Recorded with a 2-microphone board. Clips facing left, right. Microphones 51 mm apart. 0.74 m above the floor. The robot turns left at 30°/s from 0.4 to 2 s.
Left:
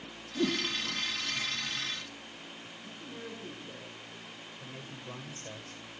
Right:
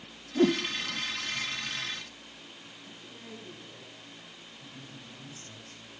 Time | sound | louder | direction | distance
0.3 | a whoosh | right 6 dB | 40° right (ahead or behind) | 1.6 m
2.8 | a man speaking | left 5 dB | 50° left (ahead or behind) | 8.5 m
4.6 | a man speaking | left 3 dB | 60° left (ahead or behind) | 3 m